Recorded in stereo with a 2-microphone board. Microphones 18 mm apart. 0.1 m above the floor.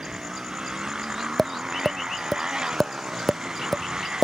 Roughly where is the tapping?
Centre.